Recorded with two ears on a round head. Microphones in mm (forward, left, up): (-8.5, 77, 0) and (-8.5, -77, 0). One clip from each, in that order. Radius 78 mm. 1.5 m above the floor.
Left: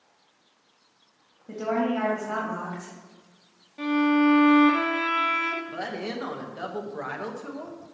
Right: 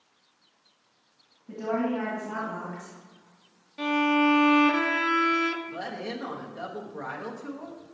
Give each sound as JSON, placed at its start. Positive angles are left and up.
{"t": 1.5, "sound": "a woman speaking", "side_deg": 35, "distance_m": 2.5}
{"t": 3.8, "sound": "a violin", "side_deg": -25, "distance_m": 0.6}
{"t": 5.7, "sound": "a woman speaking", "side_deg": 15, "distance_m": 1.2}